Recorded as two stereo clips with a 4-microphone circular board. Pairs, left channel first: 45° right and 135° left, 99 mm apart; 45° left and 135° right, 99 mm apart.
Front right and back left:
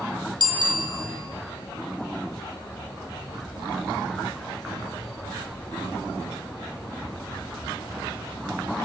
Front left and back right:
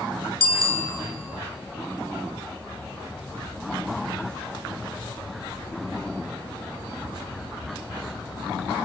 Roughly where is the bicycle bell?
Behind.